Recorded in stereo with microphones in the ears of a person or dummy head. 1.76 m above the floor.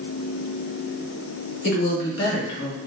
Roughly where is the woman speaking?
Left.